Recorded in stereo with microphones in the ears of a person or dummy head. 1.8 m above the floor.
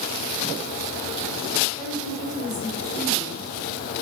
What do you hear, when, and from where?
1.8 s a woman speaking: 20° left (ahead or behind), 6.5 m